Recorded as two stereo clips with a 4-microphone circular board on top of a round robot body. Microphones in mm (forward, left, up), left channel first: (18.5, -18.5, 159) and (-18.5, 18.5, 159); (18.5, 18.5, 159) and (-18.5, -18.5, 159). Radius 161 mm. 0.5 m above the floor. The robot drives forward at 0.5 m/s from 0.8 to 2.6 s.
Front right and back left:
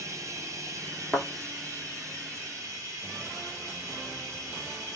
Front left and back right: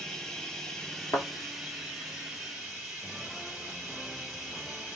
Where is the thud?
45° left, 0.9 m; by 1.3 s 50° left, 0.8 m.